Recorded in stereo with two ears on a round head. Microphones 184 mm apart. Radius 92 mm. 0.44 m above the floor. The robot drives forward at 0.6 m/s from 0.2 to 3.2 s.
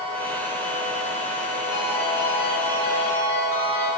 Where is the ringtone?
60° left (ahead or behind), 2.5 m; by 3.9 s 45° left (ahead or behind), 3 m.